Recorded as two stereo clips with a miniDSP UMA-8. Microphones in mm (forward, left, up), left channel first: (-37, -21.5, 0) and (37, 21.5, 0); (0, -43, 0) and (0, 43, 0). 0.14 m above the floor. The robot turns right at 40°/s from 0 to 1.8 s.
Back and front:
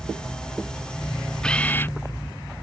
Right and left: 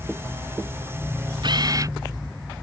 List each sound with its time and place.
1.4 s a camera shutter: 125° left; by 2.0 s 140° left